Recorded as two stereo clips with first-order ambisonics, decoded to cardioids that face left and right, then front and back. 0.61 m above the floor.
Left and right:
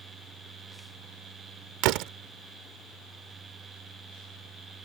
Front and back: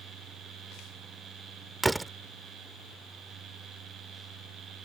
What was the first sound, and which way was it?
A door slam, 100° right.